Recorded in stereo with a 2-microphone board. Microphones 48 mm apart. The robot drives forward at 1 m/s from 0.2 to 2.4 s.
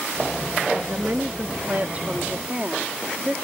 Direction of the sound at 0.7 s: 50° right (ahead or behind).